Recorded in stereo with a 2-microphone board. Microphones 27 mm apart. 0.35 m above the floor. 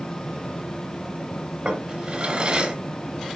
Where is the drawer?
40° right (ahead or behind), 2.5 m.